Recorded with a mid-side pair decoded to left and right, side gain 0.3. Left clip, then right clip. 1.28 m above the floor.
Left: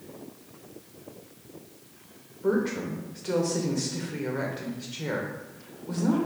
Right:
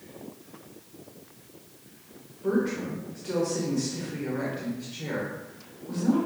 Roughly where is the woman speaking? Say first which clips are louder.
Left 1 dB; ahead left.